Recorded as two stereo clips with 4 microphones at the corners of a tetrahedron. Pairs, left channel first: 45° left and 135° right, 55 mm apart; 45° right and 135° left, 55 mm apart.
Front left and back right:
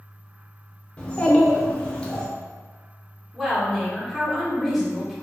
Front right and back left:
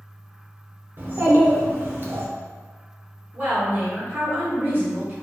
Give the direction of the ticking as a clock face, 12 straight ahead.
I don't hear ticking.